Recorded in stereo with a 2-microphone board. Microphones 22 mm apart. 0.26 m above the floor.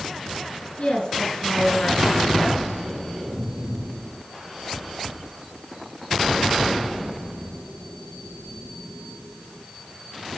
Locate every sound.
0.8 s a woman speaking: 70° left (ahead or behind), 4 m